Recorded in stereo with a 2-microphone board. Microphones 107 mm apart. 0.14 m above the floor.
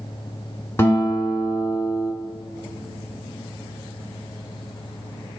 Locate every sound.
0.8 s a guitar: 20° left (ahead or behind), 0.8 m